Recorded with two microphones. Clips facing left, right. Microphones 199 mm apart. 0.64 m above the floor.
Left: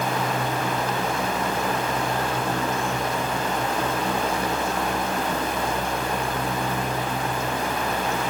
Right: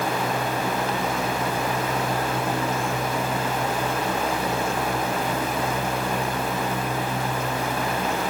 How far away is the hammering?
No hammering in this recording.